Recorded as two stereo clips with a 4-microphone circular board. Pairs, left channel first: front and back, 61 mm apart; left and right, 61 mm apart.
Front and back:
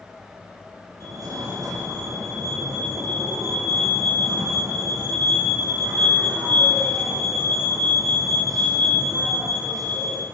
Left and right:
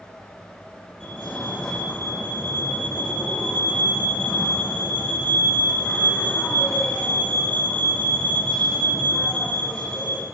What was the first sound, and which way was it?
A fire alarm, 165° left.